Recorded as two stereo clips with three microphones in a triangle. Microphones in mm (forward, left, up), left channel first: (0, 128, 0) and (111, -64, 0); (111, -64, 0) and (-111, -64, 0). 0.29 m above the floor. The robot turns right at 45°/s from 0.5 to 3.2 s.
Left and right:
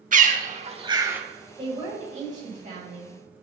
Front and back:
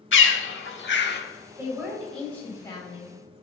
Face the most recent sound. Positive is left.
turn(degrees=-40)